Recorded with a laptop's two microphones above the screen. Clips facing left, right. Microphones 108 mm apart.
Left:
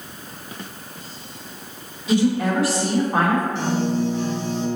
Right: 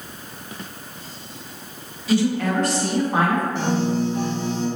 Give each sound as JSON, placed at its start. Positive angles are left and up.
{"t": 2.1, "sound": "a woman speaking", "side_deg": 20, "distance_m": 1.0}
{"t": 3.5, "sound": "a piano", "side_deg": -55, "distance_m": 2.0}